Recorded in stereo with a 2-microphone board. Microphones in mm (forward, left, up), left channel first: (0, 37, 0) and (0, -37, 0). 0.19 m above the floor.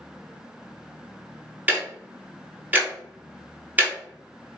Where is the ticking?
20° right (ahead or behind), 0.9 m.